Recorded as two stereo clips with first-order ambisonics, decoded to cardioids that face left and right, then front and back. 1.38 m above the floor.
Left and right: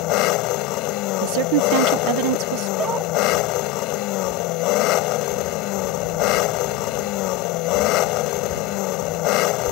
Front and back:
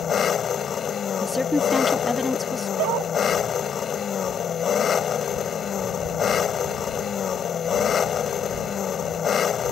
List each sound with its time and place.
0.0 s an engine running: 60° left
1.2 s a woman speaking: 85° right
2.8 s a dog barking: 155° right